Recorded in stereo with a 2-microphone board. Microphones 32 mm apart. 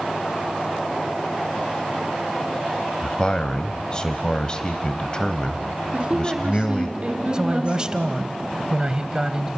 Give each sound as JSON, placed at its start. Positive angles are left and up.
{"t": 3.0, "sound": "a man speaking", "side_deg": 25, "distance_m": 1.1}
{"t": 5.9, "sound": "a woman speaking", "side_deg": -25, "distance_m": 3.0}
{"t": 7.3, "sound": "a man speaking", "side_deg": -25, "distance_m": 1.0}